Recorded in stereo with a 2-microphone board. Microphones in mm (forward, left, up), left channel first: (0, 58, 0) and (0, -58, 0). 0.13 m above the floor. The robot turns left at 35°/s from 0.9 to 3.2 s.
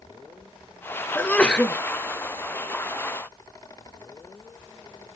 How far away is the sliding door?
No sliding door in this recording.